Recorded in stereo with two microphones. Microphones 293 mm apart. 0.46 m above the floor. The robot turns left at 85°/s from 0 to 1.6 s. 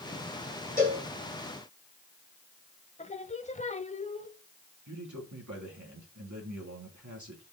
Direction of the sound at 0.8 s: 30° right (ahead or behind).